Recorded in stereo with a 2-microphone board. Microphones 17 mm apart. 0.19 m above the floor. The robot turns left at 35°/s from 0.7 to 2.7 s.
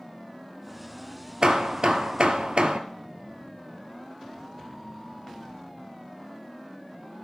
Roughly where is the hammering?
Ahead right.